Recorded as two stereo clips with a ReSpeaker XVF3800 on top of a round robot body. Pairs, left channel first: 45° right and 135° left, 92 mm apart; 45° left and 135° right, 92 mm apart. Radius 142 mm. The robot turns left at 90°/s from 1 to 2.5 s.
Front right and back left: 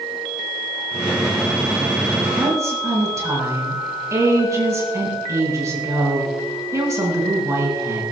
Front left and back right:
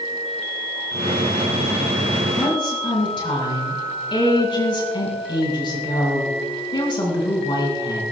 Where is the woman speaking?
90° left, 6.5 m; by 8.0 s 80° left, 6.5 m.